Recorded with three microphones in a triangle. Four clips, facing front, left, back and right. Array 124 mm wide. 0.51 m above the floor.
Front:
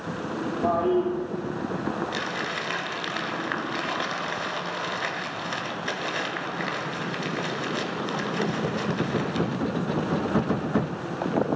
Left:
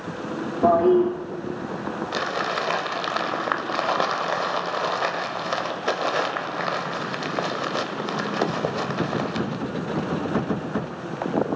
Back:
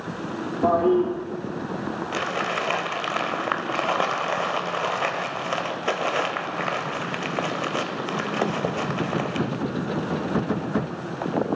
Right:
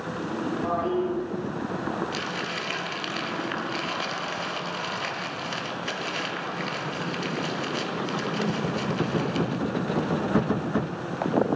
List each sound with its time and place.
0.6 s a toilet flushing: 115° left, 5.5 m
2.1 s crumpling: 130° left, 1.2 m